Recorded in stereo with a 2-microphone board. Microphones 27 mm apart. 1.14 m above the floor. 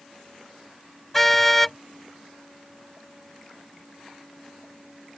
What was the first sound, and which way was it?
A car horn, 10° left (ahead or behind).